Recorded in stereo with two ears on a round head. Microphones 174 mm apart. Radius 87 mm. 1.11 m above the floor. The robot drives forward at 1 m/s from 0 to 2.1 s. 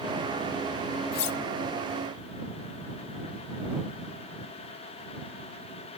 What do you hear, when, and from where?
1.1 s cutlery clinking: 50° left (ahead or behind), 0.7 m; by 1.4 s 65° left (ahead or behind), 0.6 m